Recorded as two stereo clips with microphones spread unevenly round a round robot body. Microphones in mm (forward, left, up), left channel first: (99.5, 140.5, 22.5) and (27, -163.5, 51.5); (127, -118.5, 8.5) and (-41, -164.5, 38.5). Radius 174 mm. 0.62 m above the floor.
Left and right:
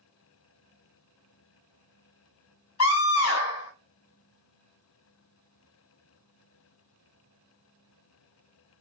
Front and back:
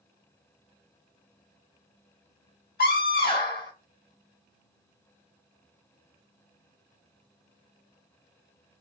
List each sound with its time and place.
2.8 s a scream: 40° left, 2.5 m